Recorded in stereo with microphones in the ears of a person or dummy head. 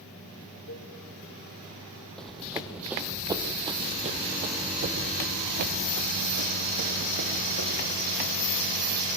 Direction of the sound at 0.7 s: 80° left.